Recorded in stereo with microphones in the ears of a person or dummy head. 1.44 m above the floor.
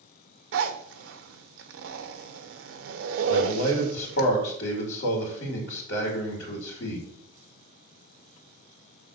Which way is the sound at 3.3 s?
75° left (ahead or behind).